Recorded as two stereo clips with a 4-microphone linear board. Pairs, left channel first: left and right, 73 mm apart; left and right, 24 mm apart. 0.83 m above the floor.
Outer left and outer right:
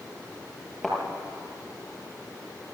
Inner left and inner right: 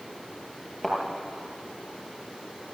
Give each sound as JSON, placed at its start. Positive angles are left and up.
{"t": 0.8, "sound": "a thud", "side_deg": 0, "distance_m": 6.0}